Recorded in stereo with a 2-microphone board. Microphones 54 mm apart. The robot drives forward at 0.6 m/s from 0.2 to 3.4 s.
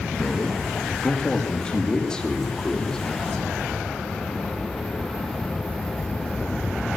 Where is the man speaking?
25° left (ahead or behind), 1.9 m; by 3.0 s 15° left (ahead or behind), 3.5 m.